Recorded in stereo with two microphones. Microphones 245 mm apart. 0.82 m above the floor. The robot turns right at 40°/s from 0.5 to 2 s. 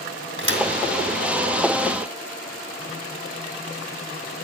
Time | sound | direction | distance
0.4 | a thud | 55° right (ahead or behind) | 2.0 m